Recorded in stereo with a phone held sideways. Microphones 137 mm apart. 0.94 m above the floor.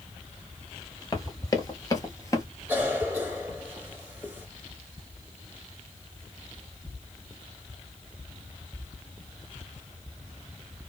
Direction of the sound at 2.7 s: 15° right (ahead or behind).